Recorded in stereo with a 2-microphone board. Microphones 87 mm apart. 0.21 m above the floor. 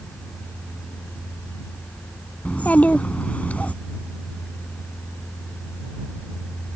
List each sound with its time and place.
2.5 s a child speaking: 20° left (ahead or behind)